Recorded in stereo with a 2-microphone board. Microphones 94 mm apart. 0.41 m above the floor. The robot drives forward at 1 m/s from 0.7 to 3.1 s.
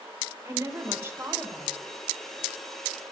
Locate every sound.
0.5 s a woman speaking: 30° right (ahead or behind), 1.3 m; by 1.7 s 20° right (ahead or behind), 2 m